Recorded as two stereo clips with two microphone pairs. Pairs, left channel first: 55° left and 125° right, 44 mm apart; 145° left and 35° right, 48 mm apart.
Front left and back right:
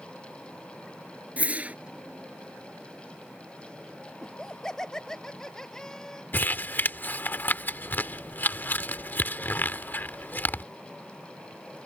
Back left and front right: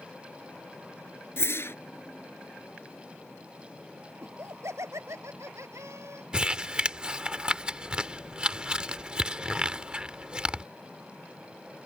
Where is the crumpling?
30° left.